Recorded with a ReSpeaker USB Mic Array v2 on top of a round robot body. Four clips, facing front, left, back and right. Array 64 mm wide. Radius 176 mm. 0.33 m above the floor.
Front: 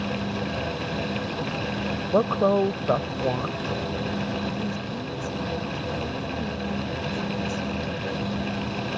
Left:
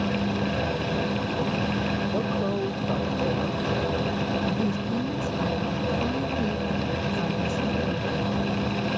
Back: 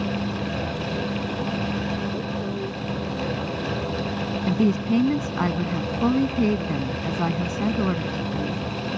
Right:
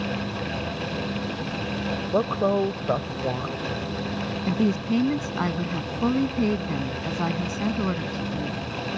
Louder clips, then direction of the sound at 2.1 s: Right 4 dB, front 8 dB; 30° right.